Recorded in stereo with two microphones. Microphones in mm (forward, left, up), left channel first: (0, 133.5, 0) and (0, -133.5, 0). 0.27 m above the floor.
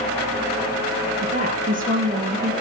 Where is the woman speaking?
30° right (ahead or behind), 4 m.